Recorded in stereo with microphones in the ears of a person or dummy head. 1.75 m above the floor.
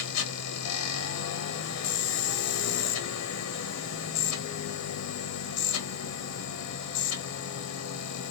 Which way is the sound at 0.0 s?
85° left.